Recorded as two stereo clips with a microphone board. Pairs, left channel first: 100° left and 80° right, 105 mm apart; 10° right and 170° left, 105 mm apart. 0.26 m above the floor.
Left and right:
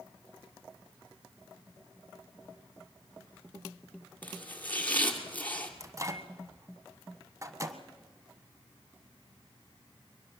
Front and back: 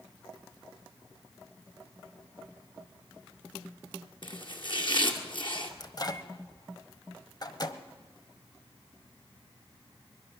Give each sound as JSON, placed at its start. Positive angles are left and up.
{"t": 4.2, "sound": "chopping", "azimuth_deg": 25, "distance_m": 2.0}
{"t": 5.8, "sound": "a microwave", "azimuth_deg": -35, "distance_m": 1.3}